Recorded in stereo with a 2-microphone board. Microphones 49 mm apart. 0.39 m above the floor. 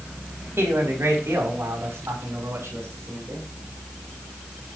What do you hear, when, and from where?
0.6 s a man speaking: 65° right (ahead or behind), 2.5 m